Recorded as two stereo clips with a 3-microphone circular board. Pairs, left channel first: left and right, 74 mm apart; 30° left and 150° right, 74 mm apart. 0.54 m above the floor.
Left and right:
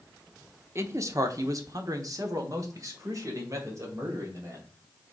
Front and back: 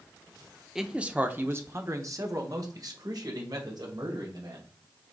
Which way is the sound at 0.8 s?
65° right.